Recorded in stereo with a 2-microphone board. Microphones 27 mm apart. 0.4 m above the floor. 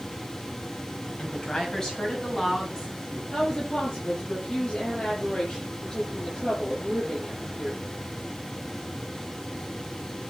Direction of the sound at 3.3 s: 35° left (ahead or behind).